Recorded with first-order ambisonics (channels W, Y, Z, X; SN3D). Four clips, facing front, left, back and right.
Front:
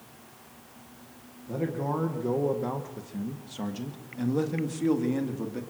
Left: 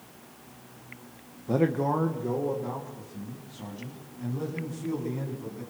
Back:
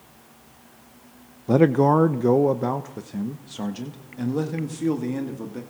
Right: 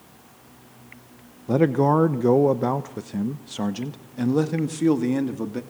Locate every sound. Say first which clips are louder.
1.5 s a man speaking: right 6 dB, back 13 dB; 165° right, 0.8 m; by 5.6 s 90° right, 2.5 m